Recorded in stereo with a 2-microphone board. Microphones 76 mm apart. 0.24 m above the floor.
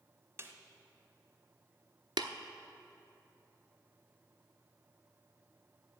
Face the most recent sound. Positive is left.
turn(degrees=-85)